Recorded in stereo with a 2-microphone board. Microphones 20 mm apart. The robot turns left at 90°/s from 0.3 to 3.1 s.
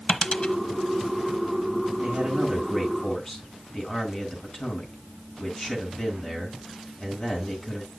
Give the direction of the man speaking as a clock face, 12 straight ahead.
4 o'clock.